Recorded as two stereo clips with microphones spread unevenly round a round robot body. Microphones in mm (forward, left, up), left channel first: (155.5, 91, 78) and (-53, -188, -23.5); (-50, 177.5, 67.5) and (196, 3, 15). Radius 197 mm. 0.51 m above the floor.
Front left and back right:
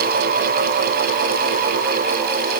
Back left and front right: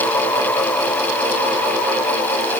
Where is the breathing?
I don't hear breathing.